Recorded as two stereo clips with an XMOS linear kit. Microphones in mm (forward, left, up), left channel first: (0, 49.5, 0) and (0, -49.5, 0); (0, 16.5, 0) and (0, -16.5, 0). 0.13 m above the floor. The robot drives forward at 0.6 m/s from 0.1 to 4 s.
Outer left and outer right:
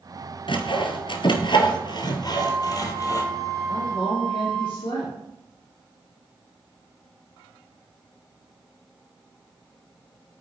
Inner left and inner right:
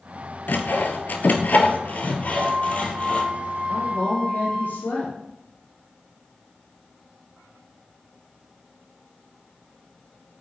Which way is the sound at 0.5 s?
60° left (ahead or behind).